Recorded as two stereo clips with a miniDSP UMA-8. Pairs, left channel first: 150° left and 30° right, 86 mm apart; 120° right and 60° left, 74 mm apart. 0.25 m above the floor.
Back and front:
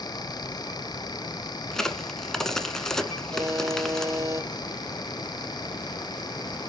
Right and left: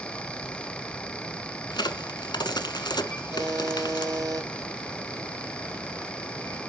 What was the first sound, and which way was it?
A crack, 125° right.